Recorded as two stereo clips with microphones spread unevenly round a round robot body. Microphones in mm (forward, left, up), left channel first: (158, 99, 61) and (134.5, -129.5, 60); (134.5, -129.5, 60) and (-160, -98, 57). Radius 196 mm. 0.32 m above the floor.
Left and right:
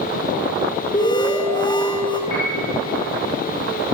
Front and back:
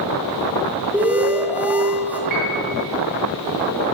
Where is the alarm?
100° left, 1.9 m.